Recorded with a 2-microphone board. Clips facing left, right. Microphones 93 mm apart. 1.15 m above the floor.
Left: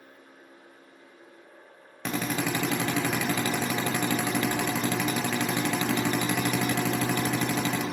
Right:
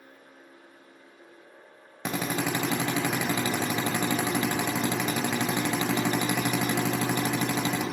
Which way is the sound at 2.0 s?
15° right (ahead or behind).